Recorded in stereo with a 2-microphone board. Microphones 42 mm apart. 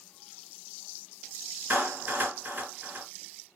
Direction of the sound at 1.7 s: 45° right (ahead or behind).